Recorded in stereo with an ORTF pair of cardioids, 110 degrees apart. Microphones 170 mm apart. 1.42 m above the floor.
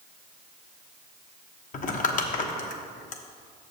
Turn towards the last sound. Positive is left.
turn(degrees=50)